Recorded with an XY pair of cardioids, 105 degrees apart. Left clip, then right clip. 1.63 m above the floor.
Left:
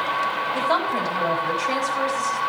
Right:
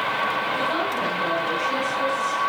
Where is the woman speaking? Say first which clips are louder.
Left 2 dB; 65° left, 5.5 m.